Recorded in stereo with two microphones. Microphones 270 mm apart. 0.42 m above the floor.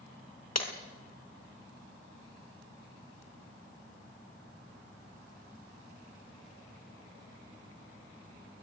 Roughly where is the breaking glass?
Left.